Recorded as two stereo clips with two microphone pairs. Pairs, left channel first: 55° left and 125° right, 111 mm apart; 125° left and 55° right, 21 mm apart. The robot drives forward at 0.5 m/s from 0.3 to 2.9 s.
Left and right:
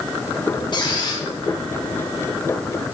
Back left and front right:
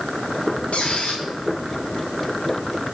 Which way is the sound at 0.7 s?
105° left.